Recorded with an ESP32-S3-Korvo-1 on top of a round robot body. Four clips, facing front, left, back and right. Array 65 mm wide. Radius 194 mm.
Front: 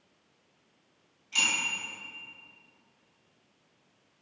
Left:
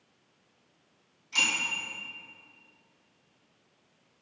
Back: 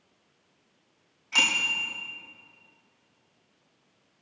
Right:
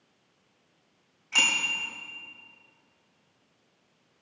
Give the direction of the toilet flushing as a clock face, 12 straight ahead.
No toilet flushing in this recording.